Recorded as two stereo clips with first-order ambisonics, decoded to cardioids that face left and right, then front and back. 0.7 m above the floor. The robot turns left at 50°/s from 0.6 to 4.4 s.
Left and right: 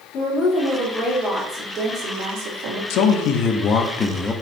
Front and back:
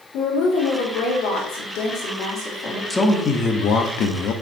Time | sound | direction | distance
0.1 | a woman speaking | 30° left | 2 m
2.9 | a man speaking | 80° left | 0.8 m